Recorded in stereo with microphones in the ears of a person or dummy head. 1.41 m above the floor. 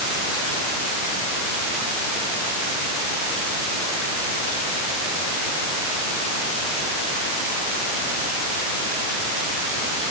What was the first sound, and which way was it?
Only background noise.